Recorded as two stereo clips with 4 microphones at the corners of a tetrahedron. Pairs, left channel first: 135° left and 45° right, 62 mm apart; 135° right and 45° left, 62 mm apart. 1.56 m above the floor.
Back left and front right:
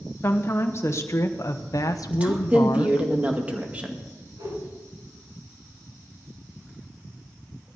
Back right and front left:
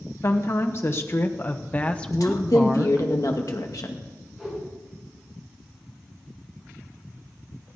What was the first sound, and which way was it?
A woman speaking, 175° right.